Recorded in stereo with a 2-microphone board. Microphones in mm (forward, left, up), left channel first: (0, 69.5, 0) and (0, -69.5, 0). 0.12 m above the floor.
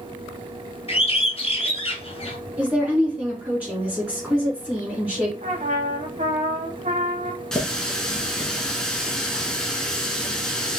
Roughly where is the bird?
Left.